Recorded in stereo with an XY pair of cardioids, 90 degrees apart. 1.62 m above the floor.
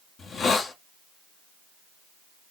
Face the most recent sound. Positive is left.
turn(degrees=55)